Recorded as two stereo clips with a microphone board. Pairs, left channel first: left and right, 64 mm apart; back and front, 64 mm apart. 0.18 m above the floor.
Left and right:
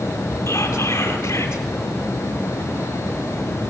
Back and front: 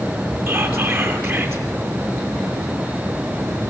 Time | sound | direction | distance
0.5 | whispering | 70° left | 3 m